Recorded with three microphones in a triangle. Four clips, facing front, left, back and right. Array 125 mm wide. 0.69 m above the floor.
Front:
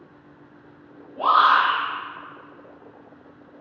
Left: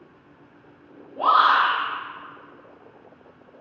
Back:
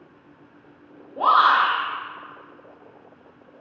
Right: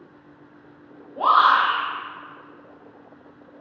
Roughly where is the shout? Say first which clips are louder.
Right 1 dB, even; behind right.